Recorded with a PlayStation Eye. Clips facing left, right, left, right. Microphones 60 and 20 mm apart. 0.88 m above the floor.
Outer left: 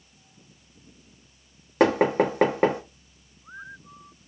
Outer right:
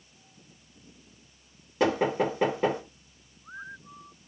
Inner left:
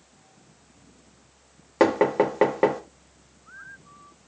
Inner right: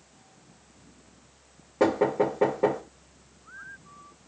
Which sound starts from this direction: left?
Knocking, at 1.8 s.